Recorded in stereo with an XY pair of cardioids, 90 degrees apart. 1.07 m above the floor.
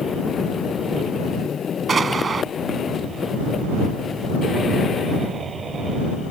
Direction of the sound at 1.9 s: 45° right.